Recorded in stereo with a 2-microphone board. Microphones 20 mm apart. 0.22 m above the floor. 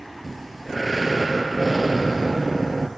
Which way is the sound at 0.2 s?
5° right (ahead or behind).